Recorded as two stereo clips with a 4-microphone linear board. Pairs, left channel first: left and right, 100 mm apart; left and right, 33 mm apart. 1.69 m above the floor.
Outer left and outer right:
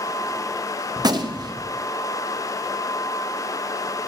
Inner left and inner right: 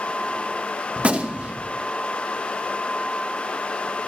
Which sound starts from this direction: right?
A gunshot, at 1.0 s.